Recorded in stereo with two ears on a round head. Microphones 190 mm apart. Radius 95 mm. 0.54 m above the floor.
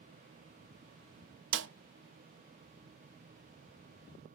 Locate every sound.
1.5 s a snare drum: 55° right (ahead or behind), 0.6 m